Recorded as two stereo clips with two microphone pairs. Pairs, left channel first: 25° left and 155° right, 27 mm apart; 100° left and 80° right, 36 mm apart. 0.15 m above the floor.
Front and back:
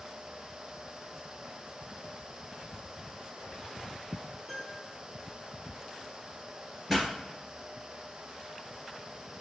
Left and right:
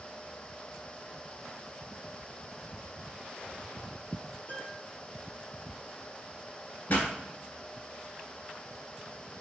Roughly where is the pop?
Behind left.